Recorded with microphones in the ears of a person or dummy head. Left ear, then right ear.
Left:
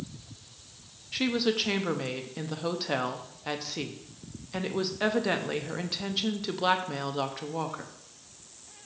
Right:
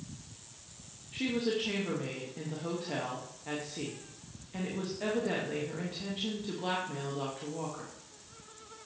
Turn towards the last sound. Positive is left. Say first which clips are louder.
# left 5 dB
turn(degrees=55)  # may be behind; listen again after turning